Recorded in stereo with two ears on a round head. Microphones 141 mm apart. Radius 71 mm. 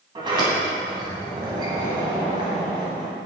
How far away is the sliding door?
About 2 m.